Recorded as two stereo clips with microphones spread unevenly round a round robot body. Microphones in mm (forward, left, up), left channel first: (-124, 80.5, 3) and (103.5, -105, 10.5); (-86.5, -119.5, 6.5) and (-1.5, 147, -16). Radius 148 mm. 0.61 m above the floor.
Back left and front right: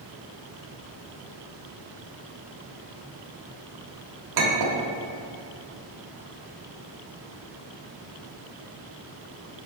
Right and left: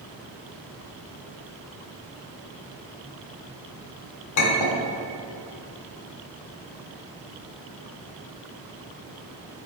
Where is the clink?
70° right, 1.1 m.